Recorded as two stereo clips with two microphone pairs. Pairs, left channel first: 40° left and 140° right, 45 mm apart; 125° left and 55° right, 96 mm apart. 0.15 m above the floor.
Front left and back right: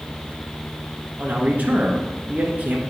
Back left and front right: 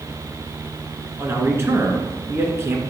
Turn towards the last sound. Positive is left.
turn(degrees=-105)